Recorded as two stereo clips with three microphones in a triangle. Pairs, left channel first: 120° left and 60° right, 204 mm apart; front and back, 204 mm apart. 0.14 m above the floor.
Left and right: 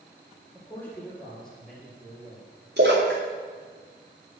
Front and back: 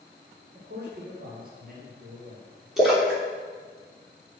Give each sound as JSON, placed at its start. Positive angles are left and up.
{"t": 0.5, "sound": "a man speaking", "azimuth_deg": -160, "distance_m": 3.5}
{"t": 2.8, "sound": "a splash", "azimuth_deg": -90, "distance_m": 3.0}